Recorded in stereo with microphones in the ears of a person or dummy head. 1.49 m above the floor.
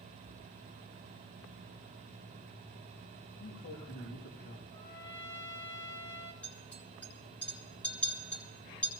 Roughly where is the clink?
Centre.